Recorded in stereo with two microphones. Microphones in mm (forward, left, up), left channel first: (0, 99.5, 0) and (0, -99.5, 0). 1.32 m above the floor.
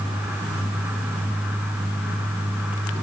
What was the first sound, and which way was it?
Only background noise.